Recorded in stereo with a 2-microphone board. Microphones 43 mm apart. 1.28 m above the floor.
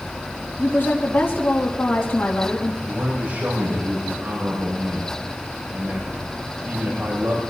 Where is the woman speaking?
60° left (ahead or behind), 2.5 m.